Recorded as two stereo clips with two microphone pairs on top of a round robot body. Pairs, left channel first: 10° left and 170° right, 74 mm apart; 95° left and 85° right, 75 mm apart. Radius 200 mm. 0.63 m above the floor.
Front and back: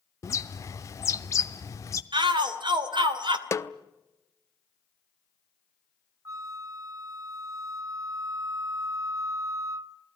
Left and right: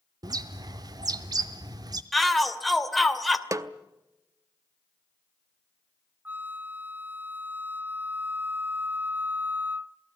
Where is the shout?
175° right, 2.5 m.